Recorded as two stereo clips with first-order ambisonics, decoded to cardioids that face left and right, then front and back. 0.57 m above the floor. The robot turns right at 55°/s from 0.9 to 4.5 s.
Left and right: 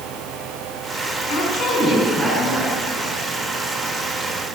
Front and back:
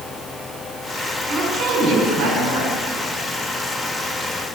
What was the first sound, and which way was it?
A woman speaking, 110° left.